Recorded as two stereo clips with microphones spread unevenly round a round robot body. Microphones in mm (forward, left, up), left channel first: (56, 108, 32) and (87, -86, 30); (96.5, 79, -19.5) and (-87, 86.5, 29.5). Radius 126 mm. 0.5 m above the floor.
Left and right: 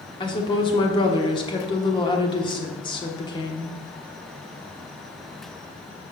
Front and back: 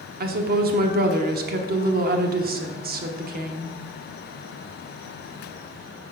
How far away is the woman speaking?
About 1.0 m.